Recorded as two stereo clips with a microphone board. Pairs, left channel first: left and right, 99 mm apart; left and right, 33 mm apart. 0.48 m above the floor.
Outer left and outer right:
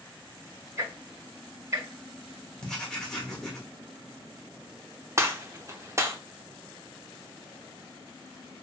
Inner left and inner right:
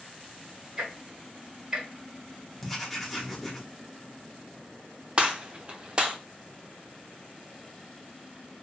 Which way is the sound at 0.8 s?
30° right (ahead or behind).